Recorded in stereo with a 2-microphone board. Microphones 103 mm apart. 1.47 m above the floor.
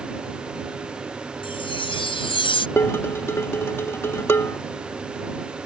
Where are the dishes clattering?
25° left (ahead or behind).